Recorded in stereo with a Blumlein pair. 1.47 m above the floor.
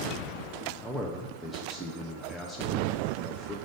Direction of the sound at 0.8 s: 5° left.